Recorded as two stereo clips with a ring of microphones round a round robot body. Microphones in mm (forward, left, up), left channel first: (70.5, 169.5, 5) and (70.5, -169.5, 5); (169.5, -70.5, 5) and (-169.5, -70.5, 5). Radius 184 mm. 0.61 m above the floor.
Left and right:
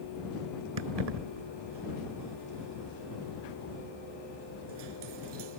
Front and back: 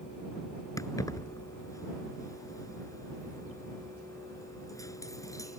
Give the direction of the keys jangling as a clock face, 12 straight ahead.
3 o'clock.